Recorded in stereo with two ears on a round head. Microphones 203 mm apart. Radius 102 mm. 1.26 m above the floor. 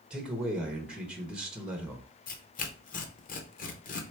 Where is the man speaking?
5° right (ahead or behind), 1.1 m.